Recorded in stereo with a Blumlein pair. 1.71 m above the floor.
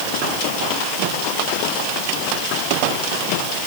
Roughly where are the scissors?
I don't hear scissors.